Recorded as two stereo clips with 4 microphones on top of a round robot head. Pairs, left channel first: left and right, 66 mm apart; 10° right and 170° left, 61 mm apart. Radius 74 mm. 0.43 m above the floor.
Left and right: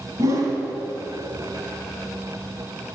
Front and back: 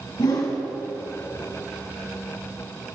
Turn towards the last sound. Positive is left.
turn(degrees=-45)